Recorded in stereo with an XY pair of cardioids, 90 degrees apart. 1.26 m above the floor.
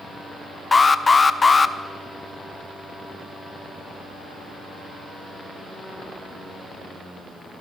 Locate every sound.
0.7 s an alarm: 30° left, 0.6 m